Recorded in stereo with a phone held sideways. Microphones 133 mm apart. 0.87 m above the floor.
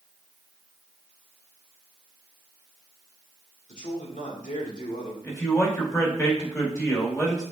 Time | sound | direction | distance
3.7 | a man speaking | 80° left | 2 m
5.2 | a man speaking | 25° left (ahead or behind) | 4 m